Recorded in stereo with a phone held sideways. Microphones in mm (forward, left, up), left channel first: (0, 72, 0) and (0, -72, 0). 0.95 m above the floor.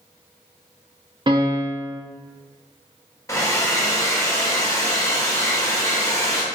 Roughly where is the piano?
Right.